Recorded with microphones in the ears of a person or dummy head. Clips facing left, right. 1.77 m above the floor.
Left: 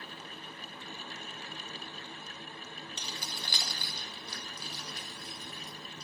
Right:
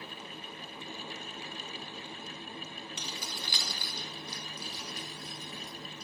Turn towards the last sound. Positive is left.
turn(degrees=70)  # may be behind; listen again after turning